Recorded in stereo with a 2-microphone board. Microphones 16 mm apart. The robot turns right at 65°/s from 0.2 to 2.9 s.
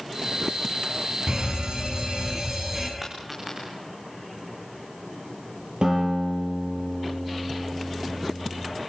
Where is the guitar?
65° right (ahead or behind), 8.5 m.